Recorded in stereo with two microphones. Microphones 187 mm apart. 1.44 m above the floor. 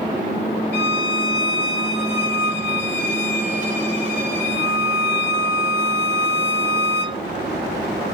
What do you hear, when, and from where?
0.7 s a violin: 40° right (ahead or behind), 1.6 m